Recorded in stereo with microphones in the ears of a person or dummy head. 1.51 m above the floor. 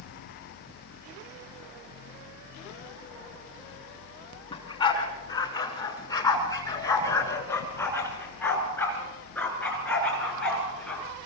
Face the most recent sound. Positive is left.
turn(degrees=10)  # may be behind; listen again after turning